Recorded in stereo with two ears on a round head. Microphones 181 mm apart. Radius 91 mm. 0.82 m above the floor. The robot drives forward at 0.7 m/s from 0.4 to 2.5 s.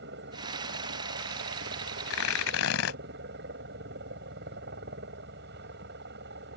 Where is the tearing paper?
80° left; by 3.0 s 85° left.